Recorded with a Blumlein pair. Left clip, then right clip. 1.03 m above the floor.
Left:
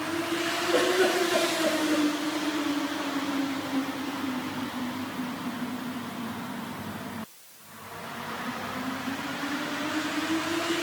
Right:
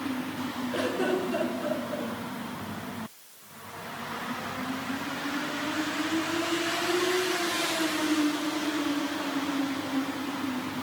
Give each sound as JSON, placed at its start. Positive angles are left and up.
{"t": 0.7, "sound": "a giggle", "azimuth_deg": 65, "distance_m": 4.5}